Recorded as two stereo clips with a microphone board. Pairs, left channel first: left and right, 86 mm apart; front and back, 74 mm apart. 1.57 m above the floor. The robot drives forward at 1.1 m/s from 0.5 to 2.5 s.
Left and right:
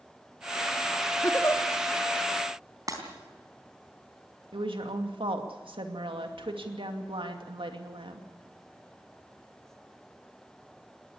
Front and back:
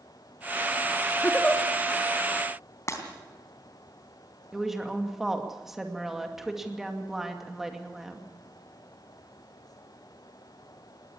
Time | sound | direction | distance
1.2 | a giggle | 55° left | 1.3 m
2.9 | breaking glass | 45° right | 3.5 m
4.5 | a woman speaking | 95° right | 2.5 m